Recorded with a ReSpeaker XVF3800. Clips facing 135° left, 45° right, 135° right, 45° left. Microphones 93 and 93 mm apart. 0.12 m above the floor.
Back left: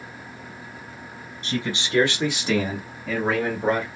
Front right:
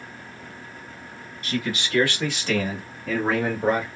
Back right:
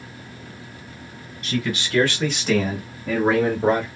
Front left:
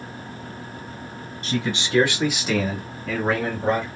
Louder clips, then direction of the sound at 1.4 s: Even, even; 90° left.